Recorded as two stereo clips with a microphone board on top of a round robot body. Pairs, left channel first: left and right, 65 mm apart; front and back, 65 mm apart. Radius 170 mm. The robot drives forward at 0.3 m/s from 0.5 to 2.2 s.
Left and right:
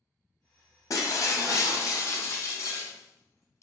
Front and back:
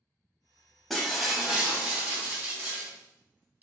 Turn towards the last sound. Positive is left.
turn(degrees=120)